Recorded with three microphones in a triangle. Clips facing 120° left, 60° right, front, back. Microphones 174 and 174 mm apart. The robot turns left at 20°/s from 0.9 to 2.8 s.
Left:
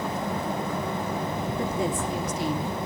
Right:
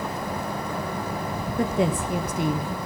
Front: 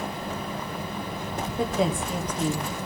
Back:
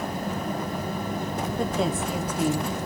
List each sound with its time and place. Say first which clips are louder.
1.6 s a woman speaking: right 6 dB, front 2 dB; 85° right, 1.1 m; by 2.8 s 105° right, 1.1 m